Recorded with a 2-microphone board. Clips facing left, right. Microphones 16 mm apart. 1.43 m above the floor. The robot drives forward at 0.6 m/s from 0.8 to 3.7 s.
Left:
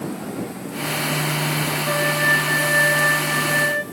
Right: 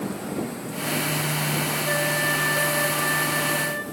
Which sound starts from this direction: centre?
A flute, at 1.8 s.